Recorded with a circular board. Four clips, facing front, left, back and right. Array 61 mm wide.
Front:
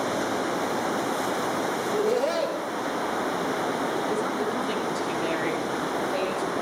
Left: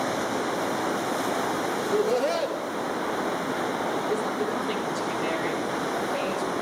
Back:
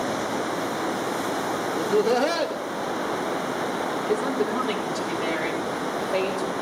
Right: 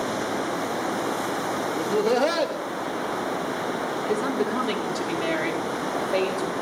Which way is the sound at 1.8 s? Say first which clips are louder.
Right 3 dB, back 5 dB; 120° right.